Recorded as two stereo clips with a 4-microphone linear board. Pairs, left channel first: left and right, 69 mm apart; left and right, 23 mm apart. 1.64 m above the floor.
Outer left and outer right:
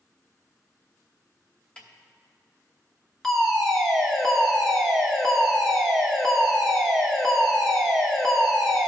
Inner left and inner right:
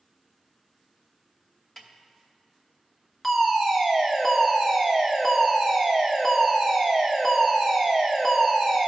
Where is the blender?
No blender in this recording.